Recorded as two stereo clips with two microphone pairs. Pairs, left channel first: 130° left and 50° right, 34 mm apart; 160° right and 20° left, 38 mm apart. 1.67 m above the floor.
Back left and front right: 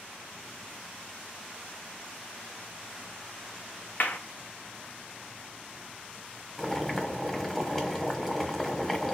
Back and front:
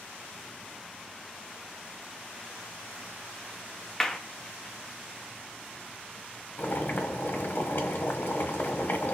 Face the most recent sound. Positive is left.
turn(degrees=-145)